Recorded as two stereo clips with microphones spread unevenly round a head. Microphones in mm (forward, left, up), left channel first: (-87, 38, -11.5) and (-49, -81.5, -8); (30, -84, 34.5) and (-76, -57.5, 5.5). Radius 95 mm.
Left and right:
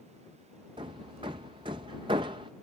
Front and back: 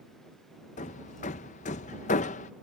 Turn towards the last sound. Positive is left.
turn(degrees=-5)